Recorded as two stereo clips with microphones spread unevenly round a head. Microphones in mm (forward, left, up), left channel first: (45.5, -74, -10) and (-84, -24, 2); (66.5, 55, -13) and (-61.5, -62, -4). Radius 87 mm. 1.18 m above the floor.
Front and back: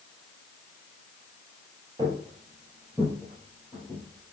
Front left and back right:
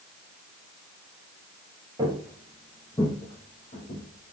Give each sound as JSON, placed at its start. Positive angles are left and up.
{"t": 2.0, "sound": "footsteps", "azimuth_deg": 170, "distance_m": 1.4}